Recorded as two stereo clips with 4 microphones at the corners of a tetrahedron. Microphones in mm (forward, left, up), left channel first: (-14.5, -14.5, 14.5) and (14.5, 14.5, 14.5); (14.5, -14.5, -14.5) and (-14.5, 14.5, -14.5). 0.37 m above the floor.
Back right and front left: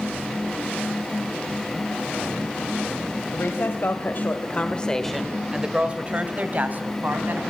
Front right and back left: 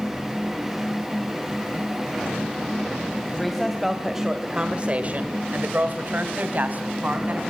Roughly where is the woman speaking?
Behind right.